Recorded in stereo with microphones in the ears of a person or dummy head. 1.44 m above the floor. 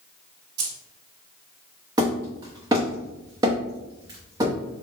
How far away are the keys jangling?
About 1.6 m.